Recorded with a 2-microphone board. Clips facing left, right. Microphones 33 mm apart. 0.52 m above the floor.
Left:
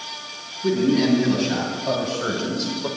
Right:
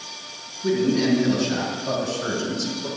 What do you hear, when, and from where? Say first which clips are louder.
0.6 s a man speaking: left 1 dB; 20° left (ahead or behind), 4 m; by 2.9 s 40° left (ahead or behind), 1.8 m